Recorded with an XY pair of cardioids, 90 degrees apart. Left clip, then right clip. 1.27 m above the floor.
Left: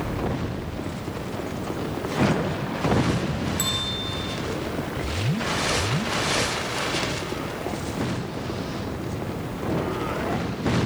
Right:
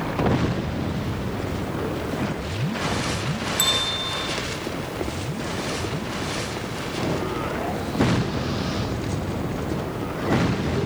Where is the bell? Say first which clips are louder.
Right 6 dB; 35° right, 1.8 m.